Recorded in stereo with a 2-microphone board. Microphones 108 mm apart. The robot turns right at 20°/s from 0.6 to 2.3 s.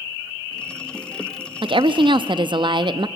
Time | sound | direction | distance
1.6 | a woman speaking | 50° right (ahead or behind) | 0.6 m